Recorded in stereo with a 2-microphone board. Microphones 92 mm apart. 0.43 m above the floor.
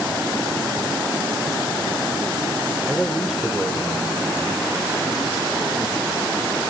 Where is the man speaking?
5° left (ahead or behind), 1.1 m; by 6.7 s 15° right (ahead or behind), 6.5 m.